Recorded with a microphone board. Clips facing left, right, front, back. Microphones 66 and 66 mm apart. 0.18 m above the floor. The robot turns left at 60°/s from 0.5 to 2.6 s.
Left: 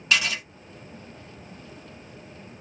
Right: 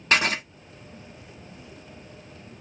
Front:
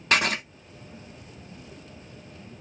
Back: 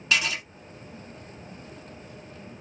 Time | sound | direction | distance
0.1 | writing | 40° right | 0.5 m